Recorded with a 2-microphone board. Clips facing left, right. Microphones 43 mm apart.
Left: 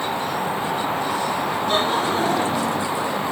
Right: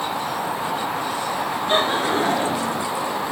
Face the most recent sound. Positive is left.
turn(degrees=-30)  # may be behind; listen again after turning